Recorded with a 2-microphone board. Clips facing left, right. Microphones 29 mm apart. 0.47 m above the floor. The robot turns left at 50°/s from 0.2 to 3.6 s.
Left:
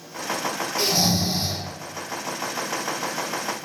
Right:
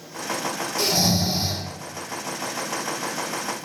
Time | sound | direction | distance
0.8 | snoring | 15° left | 1.7 m